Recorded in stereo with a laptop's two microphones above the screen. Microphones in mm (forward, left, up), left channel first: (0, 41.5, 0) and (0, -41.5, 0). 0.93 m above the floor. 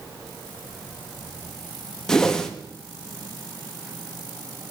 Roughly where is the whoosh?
Centre.